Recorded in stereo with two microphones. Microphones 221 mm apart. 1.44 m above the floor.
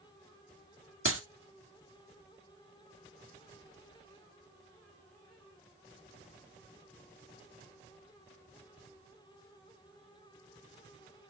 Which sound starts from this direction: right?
A clap, at 1.1 s.